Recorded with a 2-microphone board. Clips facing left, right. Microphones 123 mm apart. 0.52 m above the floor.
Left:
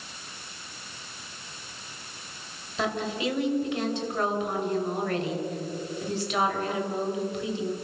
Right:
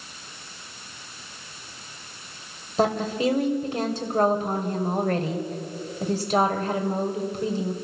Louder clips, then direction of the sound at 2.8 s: Right 6 dB; 40° right (ahead or behind).